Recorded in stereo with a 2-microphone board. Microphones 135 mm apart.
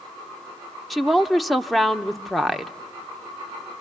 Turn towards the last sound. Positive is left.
turn(degrees=0)  # may be behind; listen again after turning